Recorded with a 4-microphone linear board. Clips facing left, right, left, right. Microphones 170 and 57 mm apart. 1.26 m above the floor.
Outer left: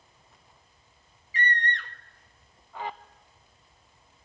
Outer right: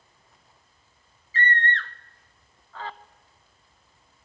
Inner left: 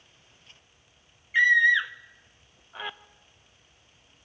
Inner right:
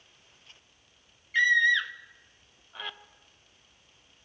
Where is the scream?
15° left (ahead or behind), 0.7 m.